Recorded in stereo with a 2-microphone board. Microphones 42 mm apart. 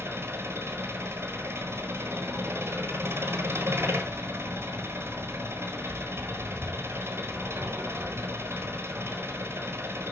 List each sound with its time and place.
0.0 s an engine running: 85° right, 1.2 m